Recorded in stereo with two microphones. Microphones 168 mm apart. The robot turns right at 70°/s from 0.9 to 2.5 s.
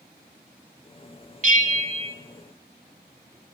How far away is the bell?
About 0.8 m.